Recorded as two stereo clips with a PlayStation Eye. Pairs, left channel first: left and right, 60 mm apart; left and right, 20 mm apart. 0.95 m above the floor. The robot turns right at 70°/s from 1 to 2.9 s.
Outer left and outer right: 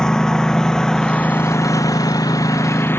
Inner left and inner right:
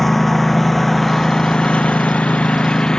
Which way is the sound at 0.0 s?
10° left (ahead or behind).